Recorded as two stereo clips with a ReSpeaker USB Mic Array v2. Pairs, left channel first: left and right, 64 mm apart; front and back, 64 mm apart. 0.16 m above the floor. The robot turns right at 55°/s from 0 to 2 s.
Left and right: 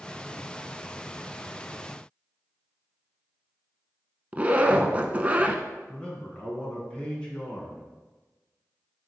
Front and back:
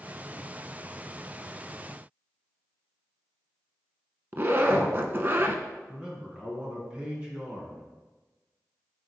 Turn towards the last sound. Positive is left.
turn(degrees=140)